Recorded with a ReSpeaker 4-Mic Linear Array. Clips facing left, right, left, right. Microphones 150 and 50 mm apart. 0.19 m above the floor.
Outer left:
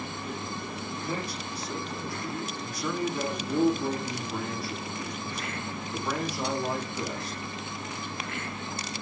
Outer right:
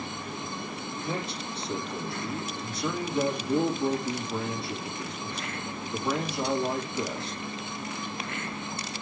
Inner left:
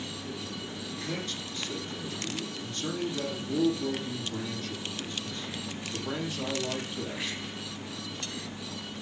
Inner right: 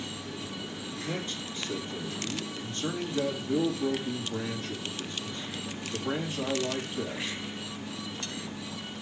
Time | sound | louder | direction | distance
1.0 | a man speaking | outer right 1 dB, inner right 1 dB | 25° right (ahead or behind) | 7 m